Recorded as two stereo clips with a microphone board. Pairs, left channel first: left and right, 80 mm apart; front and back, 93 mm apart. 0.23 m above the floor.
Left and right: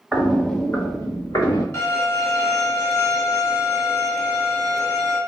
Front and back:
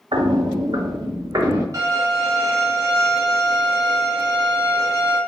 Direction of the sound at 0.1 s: Straight behind.